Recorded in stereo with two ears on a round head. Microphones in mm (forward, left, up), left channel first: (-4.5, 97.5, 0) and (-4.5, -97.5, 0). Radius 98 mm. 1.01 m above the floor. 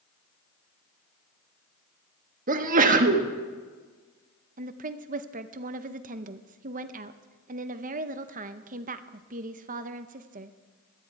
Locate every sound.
2.5 s a sneeze: 40° right (ahead or behind), 1.4 m
4.6 s a woman speaking: 40° right (ahead or behind), 0.8 m